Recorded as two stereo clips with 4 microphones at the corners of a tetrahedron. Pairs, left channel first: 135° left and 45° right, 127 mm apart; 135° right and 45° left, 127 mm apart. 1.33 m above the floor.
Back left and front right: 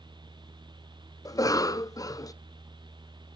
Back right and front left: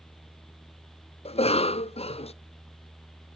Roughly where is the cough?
Behind.